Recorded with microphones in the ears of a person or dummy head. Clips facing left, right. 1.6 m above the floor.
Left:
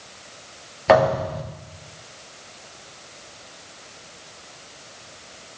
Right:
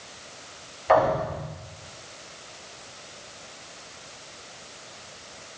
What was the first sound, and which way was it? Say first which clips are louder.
A thud: left 4 dB; 75° left (ahead or behind).